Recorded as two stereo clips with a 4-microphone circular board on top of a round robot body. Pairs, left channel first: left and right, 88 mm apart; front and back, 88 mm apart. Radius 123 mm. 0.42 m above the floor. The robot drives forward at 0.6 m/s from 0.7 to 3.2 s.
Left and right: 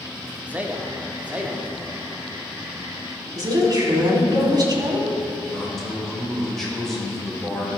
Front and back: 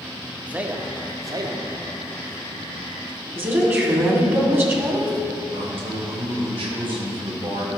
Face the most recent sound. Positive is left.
turn(degrees=175)